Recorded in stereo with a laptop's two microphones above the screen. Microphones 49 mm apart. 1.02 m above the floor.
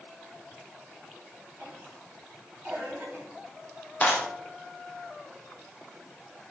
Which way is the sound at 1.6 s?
40° right (ahead or behind).